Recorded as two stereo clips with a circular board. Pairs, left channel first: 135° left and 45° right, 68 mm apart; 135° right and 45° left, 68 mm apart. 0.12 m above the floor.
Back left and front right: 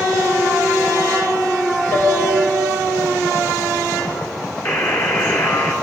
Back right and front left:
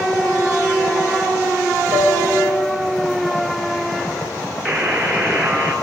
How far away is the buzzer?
About 1.7 m.